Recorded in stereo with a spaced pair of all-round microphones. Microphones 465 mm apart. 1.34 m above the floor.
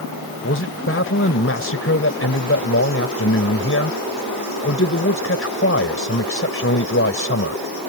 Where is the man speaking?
30° left (ahead or behind).